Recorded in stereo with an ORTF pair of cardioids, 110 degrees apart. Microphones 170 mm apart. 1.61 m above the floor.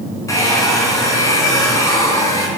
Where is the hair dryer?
20° left, 5 m.